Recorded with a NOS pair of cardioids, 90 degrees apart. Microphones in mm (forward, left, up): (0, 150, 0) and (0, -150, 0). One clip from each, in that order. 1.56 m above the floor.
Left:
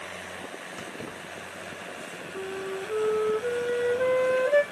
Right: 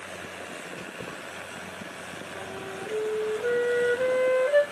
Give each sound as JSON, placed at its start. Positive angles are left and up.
{"t": 0.8, "sound": "keys jangling", "azimuth_deg": 45, "distance_m": 3.5}
{"t": 2.4, "sound": "a flute", "azimuth_deg": 40, "distance_m": 2.5}